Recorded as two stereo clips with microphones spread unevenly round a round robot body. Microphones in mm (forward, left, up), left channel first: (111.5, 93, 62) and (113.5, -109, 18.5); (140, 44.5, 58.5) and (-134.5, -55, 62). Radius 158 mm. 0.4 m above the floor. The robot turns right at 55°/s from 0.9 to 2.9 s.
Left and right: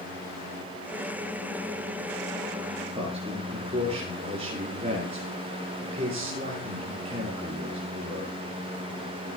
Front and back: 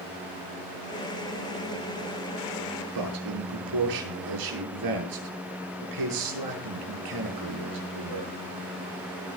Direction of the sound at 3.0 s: 160° right.